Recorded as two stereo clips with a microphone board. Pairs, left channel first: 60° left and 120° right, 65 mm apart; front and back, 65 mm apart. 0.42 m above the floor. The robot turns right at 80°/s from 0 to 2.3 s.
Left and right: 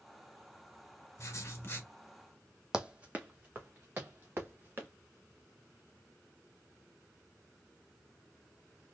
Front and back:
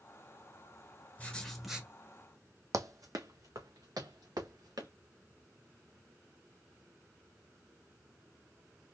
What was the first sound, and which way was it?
Writing, 55° left.